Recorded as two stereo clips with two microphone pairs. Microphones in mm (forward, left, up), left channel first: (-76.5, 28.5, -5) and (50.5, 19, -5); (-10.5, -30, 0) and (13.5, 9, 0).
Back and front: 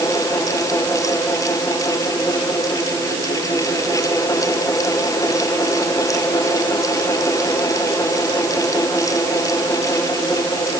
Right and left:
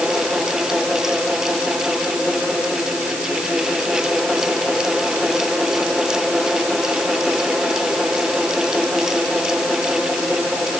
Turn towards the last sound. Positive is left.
No sound to turn to.